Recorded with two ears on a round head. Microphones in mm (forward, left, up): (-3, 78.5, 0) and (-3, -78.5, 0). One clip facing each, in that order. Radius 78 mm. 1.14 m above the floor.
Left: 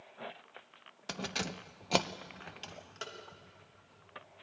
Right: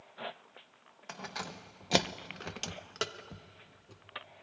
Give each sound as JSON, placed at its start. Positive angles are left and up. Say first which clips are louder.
{"t": 1.1, "sound": "keys jangling", "louder": "left 4 dB", "side_deg": 45, "distance_m": 0.8}